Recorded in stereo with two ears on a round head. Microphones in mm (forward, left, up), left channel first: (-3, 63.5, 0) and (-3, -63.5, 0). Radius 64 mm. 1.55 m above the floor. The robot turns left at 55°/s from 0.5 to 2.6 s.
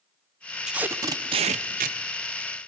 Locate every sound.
0.7 s tape being pulled: 5° right, 0.7 m; by 2.0 s 75° right, 0.7 m